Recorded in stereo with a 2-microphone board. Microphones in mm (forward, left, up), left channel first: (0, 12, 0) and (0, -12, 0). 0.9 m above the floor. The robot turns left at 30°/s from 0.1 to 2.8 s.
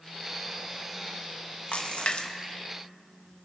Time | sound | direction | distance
1.7 | a splash | 50° left (ahead or behind) | 1.2 m